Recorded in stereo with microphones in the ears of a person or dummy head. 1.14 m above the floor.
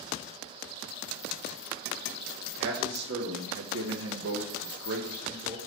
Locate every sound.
2.6 s a man speaking: 55° right (ahead or behind), 2.0 m; by 5.6 s 35° right (ahead or behind), 1.1 m